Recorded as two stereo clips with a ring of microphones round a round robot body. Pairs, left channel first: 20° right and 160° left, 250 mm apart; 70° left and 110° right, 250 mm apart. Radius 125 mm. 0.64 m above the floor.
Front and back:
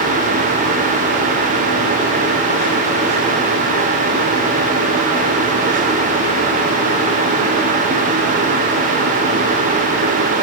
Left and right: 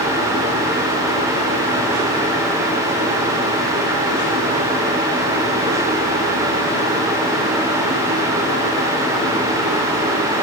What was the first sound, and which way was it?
Only background noise.